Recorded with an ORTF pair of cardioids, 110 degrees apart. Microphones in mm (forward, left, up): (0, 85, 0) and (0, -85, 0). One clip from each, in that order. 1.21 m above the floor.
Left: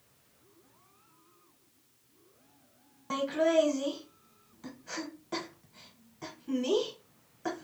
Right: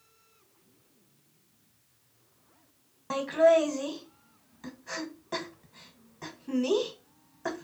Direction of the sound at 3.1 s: 5° right.